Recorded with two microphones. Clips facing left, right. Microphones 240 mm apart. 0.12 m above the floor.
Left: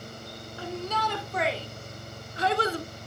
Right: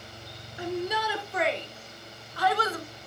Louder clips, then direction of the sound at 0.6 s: Right 3 dB; 20° right (ahead or behind).